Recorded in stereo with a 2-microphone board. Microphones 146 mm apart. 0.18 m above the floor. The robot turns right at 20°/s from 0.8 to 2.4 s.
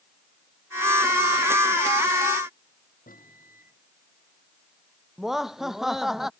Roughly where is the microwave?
Left.